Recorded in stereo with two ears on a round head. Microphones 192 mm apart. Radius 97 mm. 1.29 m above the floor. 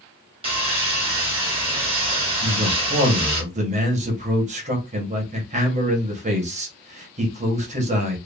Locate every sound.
0.4 s sawing: 25° right (ahead or behind), 1.6 m
2.4 s a man speaking: 35° right (ahead or behind), 1.5 m